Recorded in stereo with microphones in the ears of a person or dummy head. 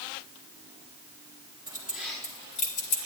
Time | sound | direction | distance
1.7 | keys jangling | 15° right (ahead or behind) | 1.2 m